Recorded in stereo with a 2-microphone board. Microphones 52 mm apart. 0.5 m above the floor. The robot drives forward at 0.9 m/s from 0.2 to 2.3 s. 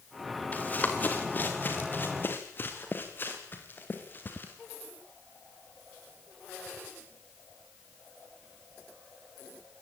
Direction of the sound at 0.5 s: 30° left (ahead or behind).